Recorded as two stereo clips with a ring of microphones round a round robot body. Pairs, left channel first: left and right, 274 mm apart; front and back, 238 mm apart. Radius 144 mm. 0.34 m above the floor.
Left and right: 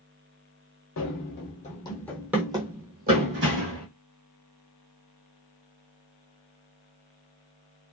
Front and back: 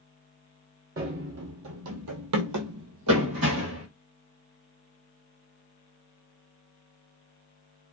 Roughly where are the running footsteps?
Behind left.